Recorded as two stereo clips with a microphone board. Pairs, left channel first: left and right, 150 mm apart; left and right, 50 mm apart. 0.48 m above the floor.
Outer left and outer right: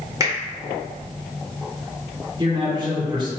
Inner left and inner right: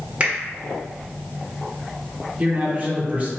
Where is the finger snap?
20° right (ahead or behind), 1.4 m.